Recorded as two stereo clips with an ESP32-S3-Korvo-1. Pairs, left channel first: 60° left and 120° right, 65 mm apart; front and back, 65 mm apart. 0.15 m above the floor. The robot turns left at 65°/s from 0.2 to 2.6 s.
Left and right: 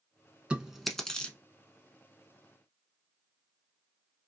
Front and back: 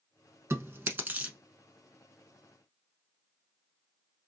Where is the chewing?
170° left, 0.8 m; by 1.4 s 115° left, 0.8 m.